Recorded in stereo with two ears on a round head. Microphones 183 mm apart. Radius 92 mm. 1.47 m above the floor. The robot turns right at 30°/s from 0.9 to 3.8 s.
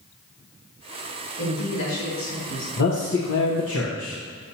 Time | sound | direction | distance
1.4 | a man speaking | 55° left | 2.5 m
2.8 | a man speaking | 60° left | 1.0 m